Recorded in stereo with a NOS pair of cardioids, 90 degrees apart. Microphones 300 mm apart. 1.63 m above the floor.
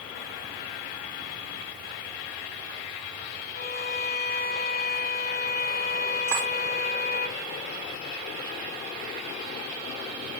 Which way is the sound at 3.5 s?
30° left.